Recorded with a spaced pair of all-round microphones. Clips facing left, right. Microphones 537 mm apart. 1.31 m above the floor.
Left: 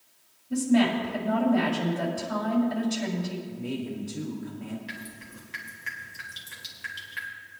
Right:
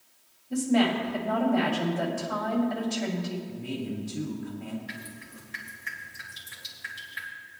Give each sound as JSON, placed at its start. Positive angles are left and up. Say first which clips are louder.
{"t": 0.5, "sound": "a woman speaking", "louder": "left 2 dB", "side_deg": 30, "distance_m": 3.0}
{"t": 3.5, "sound": "a man speaking", "louder": "left 1 dB", "side_deg": -25, "distance_m": 2.0}
{"t": 4.9, "sound": "dripping", "louder": "even", "side_deg": 80, "distance_m": 2.0}